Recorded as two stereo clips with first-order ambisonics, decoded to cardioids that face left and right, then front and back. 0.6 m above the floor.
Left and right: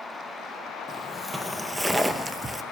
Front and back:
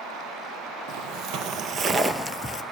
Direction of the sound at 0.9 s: Straight behind.